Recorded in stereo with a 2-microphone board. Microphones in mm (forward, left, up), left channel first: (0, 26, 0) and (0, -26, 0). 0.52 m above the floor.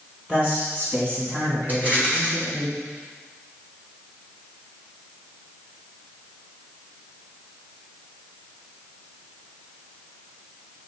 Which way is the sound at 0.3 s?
30° right (ahead or behind).